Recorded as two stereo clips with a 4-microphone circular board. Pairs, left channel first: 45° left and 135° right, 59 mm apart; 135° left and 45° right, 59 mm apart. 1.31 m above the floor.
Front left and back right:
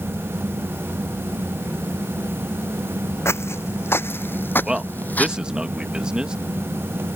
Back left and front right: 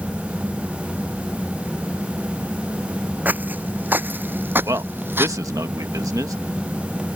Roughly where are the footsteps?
Ahead.